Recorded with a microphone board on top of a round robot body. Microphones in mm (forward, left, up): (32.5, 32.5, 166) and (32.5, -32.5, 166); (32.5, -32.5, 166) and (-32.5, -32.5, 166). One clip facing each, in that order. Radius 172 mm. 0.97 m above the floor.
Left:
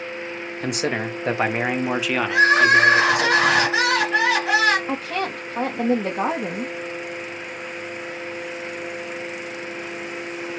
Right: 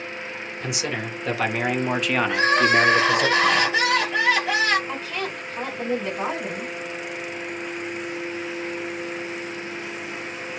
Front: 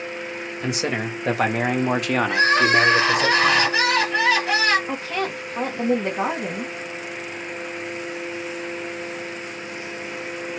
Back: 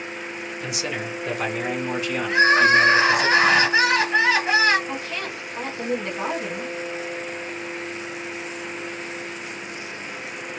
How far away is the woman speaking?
About 1.5 m.